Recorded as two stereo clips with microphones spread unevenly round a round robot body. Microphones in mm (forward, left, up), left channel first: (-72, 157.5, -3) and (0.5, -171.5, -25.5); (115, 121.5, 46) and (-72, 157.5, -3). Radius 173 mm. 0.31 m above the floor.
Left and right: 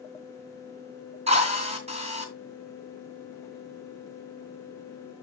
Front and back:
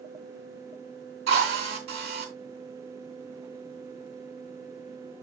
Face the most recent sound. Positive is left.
turn(degrees=-145)